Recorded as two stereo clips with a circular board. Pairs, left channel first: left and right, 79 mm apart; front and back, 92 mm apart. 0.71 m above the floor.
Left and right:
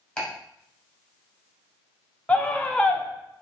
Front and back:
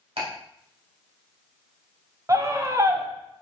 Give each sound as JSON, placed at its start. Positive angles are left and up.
{"t": 0.2, "sound": "ticking", "azimuth_deg": 170, "distance_m": 2.0}
{"t": 2.3, "sound": "a scream", "azimuth_deg": 155, "distance_m": 0.6}